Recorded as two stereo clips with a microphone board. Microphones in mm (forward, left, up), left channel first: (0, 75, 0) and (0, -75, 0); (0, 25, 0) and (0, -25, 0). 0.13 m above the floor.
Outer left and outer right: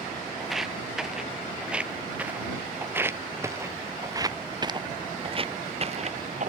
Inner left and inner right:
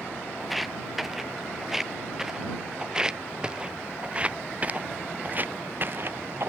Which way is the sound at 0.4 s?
Centre (ahead or behind).